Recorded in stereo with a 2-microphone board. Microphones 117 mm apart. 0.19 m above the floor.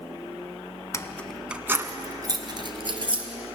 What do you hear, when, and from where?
0.9 s keys jangling: 30° left (ahead or behind), 1.0 m; by 3.2 s 50° right (ahead or behind), 3 m